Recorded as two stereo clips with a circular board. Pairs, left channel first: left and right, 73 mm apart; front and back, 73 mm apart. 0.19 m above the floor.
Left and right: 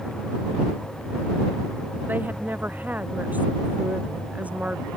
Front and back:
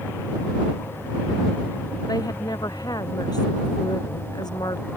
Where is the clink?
I don't hear a clink.